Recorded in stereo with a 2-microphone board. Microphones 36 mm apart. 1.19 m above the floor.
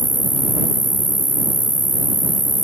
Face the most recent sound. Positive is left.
turn(degrees=-50)  # may be behind; listen again after turning